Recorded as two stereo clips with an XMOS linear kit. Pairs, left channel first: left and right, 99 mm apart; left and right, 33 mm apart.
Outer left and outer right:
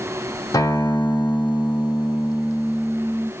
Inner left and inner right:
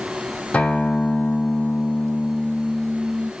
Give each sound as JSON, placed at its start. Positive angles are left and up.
{"t": 0.5, "sound": "a guitar", "side_deg": 35, "distance_m": 1.4}